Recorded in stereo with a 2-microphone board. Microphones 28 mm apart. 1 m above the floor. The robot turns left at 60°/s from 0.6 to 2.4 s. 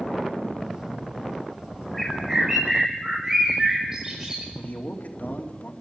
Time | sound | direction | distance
1.9 | a bird | 5° left (ahead or behind) | 5.5 m
4.5 | a man speaking | 60° left (ahead or behind) | 2.5 m